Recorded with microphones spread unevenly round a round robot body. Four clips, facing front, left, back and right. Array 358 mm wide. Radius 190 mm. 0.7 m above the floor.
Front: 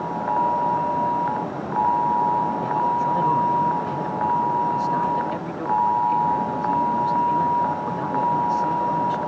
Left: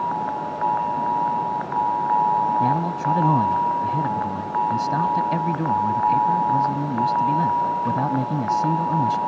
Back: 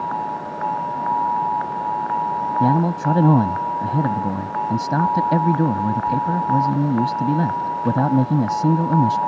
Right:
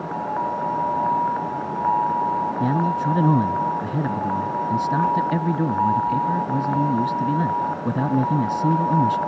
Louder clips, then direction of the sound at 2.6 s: Even, back 3 dB; 160° right.